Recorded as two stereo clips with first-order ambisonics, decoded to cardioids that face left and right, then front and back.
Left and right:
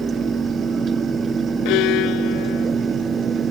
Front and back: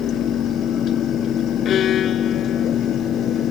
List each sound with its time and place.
1.6 s a violin: 60° left